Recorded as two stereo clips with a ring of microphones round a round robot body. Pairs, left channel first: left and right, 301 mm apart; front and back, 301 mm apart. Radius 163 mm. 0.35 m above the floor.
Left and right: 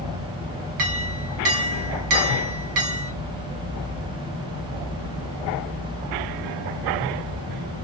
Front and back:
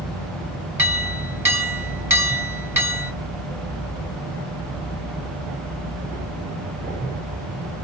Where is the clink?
100° right, 2 m.